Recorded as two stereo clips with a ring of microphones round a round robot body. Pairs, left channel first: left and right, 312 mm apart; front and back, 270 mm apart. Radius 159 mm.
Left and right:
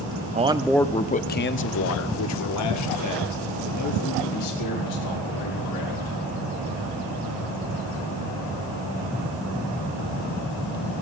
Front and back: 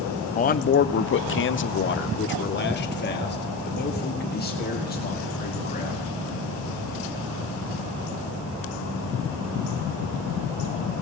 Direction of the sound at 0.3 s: 40° right.